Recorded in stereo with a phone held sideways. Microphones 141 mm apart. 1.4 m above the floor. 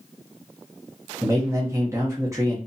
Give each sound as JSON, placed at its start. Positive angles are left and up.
{"t": 1.2, "sound": "a man speaking", "side_deg": -20, "distance_m": 0.7}